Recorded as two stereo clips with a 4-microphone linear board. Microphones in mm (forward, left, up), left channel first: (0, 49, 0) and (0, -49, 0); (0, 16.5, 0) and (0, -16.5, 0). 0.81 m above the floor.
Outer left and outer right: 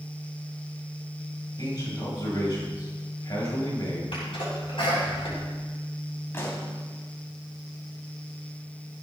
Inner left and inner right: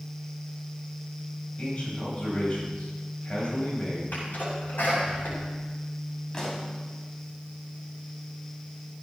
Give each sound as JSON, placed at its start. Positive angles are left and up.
{"t": 1.6, "sound": "a man speaking", "side_deg": 45, "distance_m": 5.5}
{"t": 4.1, "sound": "a sneeze", "side_deg": 65, "distance_m": 7.0}
{"t": 6.3, "sound": "a pop", "side_deg": 25, "distance_m": 3.0}